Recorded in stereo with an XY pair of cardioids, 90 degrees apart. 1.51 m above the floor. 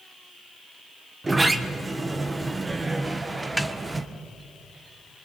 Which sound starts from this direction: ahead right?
A sliding door, at 1.2 s.